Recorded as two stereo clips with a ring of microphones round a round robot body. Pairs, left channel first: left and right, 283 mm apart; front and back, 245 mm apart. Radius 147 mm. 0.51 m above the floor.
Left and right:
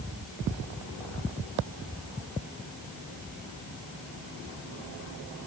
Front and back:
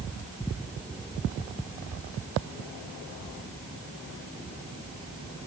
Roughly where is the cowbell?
No cowbell in this recording.